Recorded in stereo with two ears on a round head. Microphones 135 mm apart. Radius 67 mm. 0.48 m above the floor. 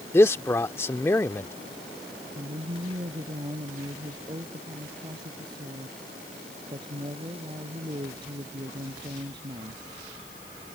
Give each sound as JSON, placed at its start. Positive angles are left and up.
{"t": 0.1, "sound": "a man speaking", "side_deg": 15}
{"t": 2.4, "sound": "a woman speaking", "side_deg": -30}